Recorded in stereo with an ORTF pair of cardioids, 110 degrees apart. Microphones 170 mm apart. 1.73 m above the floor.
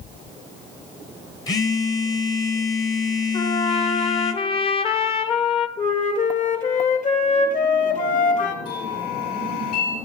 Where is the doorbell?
60° left, 4.5 m.